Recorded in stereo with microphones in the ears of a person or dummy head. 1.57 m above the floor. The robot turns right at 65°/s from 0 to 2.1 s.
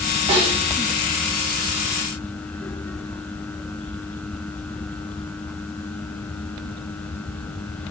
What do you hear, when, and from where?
0.3 s a snare drum: 25° right (ahead or behind), 1.3 m; by 0.6 s 45° right (ahead or behind), 1.3 m